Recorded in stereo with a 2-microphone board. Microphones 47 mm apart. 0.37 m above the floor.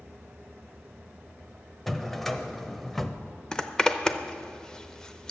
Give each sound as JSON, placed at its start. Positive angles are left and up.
{"t": 1.9, "sound": "a drawer", "side_deg": 5, "distance_m": 0.6}
{"t": 3.5, "sound": "a zipper", "side_deg": 15, "distance_m": 0.6}